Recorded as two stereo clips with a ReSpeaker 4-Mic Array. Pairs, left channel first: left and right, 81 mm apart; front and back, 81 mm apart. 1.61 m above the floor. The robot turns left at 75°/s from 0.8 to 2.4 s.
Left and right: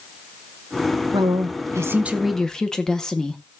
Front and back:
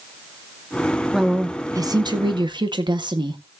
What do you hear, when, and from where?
1.1 s a woman speaking: 90° right, 1.6 m; by 3.4 s 175° left, 1.6 m